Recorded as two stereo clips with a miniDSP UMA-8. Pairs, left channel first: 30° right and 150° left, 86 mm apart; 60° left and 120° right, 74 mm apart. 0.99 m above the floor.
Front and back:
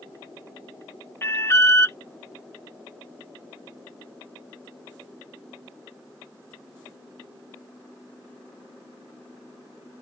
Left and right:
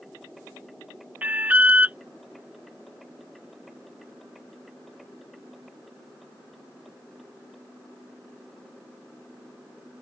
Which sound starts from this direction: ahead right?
An alarm, at 1.2 s.